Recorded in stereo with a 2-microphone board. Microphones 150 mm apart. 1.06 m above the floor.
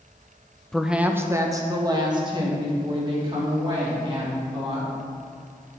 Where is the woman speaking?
5° left (ahead or behind), 0.5 m; by 4.9 s 35° right (ahead or behind), 3.5 m.